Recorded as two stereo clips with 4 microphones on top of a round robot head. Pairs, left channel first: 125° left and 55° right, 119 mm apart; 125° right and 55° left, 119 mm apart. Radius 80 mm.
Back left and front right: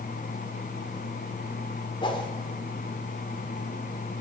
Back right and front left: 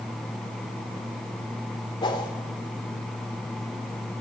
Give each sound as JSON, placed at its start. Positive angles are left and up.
{"t": 2.0, "sound": "a whoosh", "azimuth_deg": 180, "distance_m": 1.7}